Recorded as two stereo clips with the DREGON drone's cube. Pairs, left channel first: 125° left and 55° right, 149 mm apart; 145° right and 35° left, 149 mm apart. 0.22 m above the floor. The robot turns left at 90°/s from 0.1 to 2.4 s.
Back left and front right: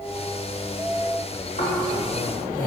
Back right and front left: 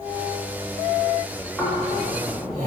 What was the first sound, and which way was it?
Snoring, 130° left.